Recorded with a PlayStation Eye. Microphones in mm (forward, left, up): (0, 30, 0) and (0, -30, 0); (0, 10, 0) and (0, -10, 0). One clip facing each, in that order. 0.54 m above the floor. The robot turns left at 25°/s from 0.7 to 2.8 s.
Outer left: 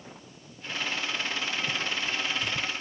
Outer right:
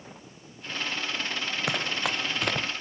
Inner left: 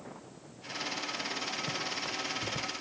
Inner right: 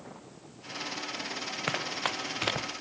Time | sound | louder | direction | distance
1.7 | running footsteps | outer right 2 dB, inner right 3 dB | 80° right | ?